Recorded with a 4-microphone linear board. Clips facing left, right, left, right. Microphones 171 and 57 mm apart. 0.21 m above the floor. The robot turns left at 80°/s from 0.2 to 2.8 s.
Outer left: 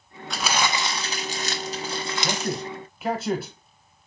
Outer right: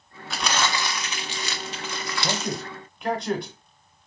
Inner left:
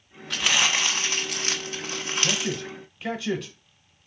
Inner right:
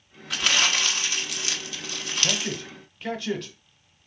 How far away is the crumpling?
About 1.0 m.